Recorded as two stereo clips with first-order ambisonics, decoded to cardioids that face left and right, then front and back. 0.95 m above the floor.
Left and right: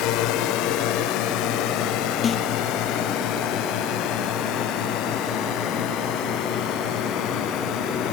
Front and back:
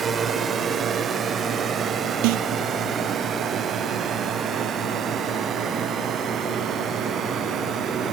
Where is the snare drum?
160° left.